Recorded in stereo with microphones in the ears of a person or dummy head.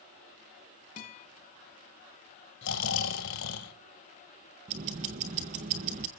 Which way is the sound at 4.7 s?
30° right (ahead or behind).